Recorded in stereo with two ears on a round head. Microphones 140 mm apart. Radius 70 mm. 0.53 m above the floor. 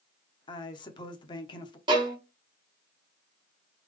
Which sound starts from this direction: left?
A woman speaking, at 0.5 s.